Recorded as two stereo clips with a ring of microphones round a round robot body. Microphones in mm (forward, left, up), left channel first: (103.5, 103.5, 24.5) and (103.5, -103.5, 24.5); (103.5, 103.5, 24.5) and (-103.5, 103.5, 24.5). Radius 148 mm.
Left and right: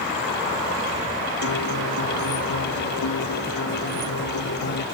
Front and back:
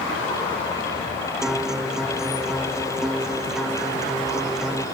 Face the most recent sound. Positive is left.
turn(degrees=90)